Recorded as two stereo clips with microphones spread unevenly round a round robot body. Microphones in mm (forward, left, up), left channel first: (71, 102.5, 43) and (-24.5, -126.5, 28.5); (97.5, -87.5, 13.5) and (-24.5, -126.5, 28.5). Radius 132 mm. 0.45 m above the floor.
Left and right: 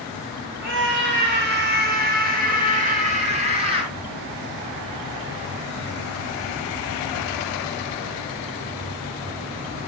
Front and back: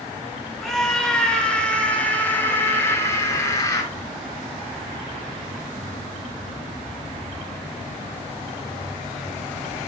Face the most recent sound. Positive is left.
turn(degrees=-45)